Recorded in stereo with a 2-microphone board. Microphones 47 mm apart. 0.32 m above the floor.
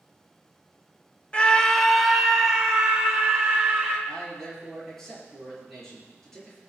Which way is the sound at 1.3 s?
25° left (ahead or behind).